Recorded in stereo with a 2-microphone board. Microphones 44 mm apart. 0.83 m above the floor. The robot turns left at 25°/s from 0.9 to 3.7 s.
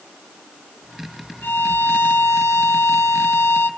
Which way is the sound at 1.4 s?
125° left.